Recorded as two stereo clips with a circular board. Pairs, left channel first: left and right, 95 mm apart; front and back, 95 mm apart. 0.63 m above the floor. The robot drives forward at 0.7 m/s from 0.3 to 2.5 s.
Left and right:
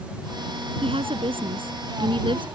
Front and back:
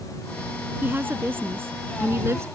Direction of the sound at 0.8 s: 110° right.